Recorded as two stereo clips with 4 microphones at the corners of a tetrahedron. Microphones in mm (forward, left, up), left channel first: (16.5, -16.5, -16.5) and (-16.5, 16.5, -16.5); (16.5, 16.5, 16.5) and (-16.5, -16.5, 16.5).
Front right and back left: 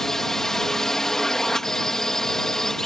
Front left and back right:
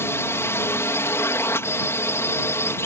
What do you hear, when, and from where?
0.0 s a drone: 35° left